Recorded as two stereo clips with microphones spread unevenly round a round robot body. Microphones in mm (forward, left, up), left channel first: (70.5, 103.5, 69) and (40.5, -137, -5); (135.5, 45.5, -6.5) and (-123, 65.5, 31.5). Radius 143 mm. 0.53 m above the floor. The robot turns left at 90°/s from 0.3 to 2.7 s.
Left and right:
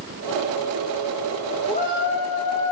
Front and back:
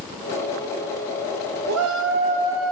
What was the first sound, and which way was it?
A shout, 165° left.